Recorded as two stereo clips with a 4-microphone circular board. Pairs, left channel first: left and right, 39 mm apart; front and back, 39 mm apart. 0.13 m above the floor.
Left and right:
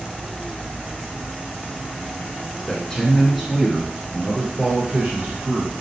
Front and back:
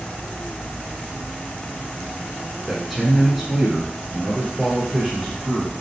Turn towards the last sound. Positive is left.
turn(degrees=-90)